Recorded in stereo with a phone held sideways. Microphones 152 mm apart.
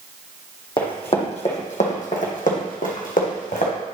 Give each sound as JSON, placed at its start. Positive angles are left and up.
{"t": 0.8, "sound": "running footsteps", "side_deg": 35, "distance_m": 2.5}